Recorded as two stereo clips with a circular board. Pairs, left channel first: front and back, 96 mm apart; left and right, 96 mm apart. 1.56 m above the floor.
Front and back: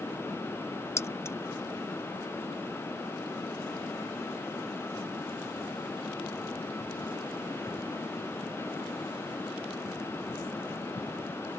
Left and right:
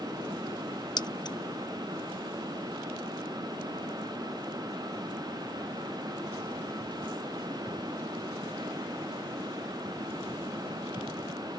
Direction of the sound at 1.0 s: 60° left.